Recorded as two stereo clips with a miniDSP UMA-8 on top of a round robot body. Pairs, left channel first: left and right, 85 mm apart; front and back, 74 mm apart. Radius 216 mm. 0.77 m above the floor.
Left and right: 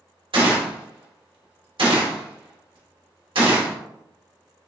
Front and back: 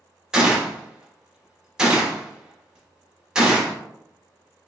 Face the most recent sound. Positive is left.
turn(degrees=-100)